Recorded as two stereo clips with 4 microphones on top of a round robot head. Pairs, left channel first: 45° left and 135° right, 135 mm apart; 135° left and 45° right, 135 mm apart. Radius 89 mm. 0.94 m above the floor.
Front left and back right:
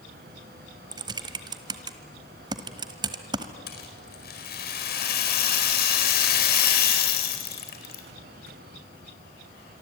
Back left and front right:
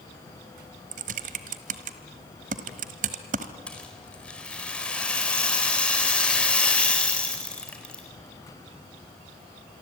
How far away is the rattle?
About 4 m.